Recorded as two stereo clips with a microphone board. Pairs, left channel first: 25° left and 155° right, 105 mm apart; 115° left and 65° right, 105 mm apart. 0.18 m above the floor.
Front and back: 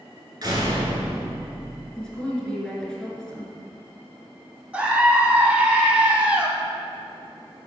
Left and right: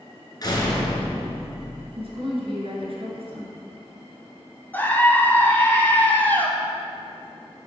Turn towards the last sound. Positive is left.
turn(degrees=145)